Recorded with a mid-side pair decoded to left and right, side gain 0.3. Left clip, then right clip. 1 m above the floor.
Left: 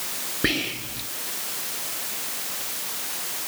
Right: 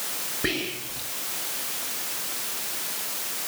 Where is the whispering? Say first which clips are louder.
Left 4 dB; 50° left, 1.6 m.